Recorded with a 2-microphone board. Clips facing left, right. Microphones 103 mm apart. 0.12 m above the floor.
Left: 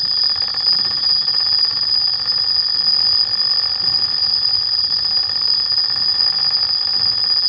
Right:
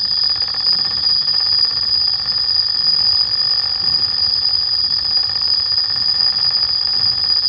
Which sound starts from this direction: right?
An insect, at 0.0 s.